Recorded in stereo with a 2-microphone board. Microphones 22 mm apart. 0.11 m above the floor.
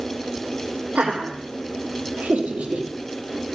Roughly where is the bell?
No bell in this recording.